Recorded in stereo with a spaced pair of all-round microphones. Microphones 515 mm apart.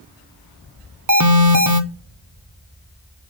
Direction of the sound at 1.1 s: 35° right (ahead or behind).